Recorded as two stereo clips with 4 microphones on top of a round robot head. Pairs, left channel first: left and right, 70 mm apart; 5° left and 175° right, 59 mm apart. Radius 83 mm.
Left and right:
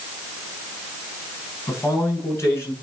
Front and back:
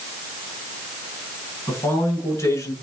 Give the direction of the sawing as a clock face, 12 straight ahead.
No sawing in this recording.